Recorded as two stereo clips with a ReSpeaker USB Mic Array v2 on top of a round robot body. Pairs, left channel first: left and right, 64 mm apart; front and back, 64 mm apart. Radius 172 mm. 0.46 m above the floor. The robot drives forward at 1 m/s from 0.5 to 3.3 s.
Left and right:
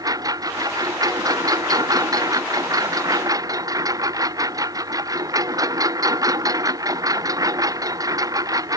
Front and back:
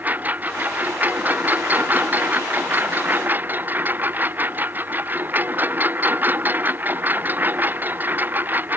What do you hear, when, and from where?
0.0 s a lawn mower: 115° right